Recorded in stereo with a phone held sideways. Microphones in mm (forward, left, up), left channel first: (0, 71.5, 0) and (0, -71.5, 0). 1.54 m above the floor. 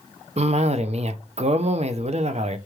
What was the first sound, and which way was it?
A cough, 50° right (ahead or behind).